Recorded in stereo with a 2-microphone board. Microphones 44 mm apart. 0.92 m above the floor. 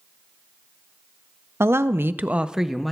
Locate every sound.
1.6 s a woman speaking: 70° right (ahead or behind), 0.7 m; by 2.9 s centre (ahead or behind), 0.8 m